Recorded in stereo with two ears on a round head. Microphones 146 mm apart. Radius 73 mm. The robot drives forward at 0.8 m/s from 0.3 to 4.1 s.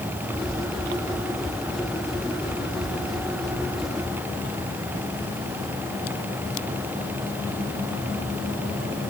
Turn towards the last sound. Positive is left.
No sound to turn to.